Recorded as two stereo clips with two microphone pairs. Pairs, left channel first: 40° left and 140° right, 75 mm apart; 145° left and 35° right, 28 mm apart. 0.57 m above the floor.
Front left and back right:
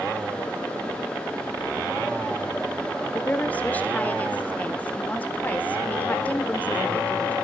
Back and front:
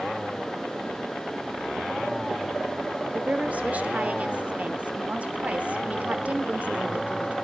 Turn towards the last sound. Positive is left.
turn(degrees=-25)